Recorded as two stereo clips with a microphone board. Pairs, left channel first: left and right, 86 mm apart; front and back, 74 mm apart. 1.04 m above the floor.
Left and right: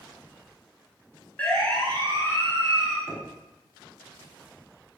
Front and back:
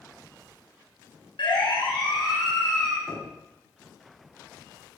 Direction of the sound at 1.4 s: 15° left.